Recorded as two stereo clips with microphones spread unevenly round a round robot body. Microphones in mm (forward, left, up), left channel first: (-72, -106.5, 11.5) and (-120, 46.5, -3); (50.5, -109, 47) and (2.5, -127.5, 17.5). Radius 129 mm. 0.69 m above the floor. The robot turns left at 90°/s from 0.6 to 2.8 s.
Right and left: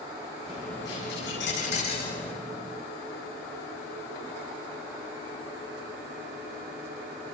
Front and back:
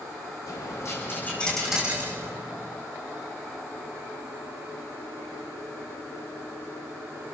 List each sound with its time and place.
0.5 s a dropped coin: 25° left, 10 m; by 2.4 s 130° right, 10 m